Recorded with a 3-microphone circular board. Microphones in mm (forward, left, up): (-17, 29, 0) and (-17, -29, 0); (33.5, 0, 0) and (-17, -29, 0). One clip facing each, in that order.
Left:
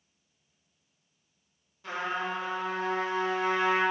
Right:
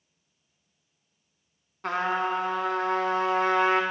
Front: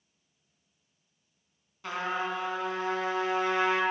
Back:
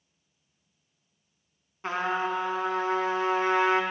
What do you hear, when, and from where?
1.8 s a trumpet: 95° right, 0.7 m